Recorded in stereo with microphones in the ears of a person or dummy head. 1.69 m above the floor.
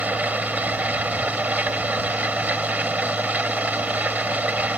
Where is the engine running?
10° right (ahead or behind).